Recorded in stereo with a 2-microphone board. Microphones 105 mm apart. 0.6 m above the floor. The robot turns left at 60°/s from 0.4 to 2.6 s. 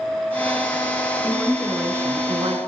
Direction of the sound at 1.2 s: 20° left.